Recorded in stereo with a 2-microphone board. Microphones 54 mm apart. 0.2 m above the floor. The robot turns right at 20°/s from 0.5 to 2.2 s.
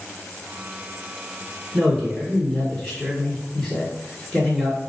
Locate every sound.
1.7 s a man speaking: centre (ahead or behind), 1.6 m; by 4.8 s 5° left (ahead or behind), 1.6 m